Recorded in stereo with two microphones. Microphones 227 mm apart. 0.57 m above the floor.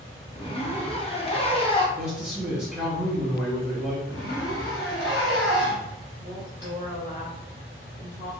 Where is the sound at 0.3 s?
25° left (ahead or behind), 0.6 m.